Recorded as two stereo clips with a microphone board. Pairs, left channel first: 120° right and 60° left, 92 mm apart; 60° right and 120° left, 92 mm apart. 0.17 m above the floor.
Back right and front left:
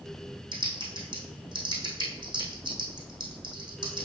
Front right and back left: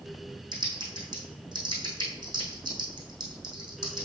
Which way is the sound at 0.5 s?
80° left.